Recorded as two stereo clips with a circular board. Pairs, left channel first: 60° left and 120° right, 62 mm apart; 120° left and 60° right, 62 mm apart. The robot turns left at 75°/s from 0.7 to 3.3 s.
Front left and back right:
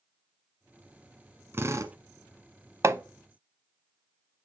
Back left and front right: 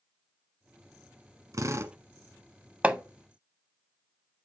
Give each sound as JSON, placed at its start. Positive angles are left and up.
{"t": 1.5, "sound": "a drill", "azimuth_deg": -75, "distance_m": 1.1}
{"t": 2.8, "sound": "hammering", "azimuth_deg": -125, "distance_m": 0.6}